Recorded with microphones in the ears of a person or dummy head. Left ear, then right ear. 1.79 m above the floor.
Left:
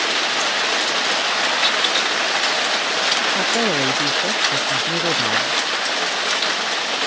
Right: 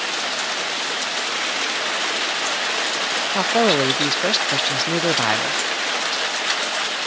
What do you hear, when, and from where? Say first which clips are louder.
3.4 s a man speaking: right 1 dB; 80° right